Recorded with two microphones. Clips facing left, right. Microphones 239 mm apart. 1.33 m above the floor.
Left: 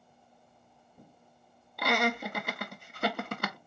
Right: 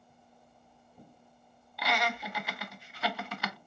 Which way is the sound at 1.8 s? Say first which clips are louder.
Left 5 dB; 50° left (ahead or behind).